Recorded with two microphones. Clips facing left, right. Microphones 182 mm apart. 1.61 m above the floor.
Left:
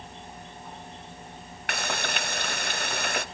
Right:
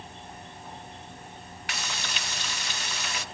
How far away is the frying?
About 0.6 m.